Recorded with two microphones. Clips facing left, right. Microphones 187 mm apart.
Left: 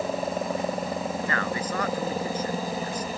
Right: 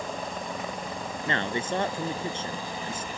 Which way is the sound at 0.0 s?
40° left (ahead or behind).